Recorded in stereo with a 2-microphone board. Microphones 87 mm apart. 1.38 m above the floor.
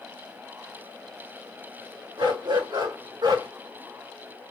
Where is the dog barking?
75° right (ahead or behind), 4.5 m; by 3.5 s 65° right (ahead or behind), 2.5 m.